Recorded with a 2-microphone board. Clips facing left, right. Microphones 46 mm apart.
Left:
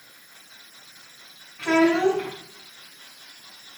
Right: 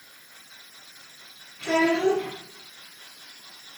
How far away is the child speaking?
About 3 m.